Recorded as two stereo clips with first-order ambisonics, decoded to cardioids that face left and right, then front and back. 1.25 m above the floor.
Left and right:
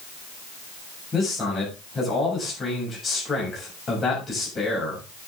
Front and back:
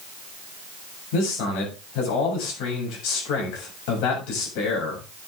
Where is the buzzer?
I don't hear a buzzer.